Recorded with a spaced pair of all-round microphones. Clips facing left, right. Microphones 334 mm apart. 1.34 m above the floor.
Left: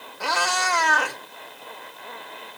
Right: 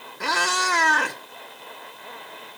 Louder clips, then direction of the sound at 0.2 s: Even; 30° right (ahead or behind).